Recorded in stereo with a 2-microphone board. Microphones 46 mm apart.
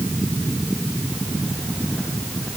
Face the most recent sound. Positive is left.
No sound to turn to.